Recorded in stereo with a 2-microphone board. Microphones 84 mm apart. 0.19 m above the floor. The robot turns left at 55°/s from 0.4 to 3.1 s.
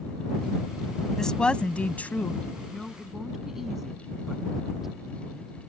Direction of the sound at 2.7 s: 10° left (ahead or behind).